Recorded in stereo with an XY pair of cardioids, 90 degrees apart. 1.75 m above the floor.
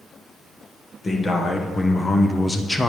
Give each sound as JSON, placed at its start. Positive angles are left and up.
{"t": 1.0, "sound": "a man speaking", "azimuth_deg": 40, "distance_m": 1.6}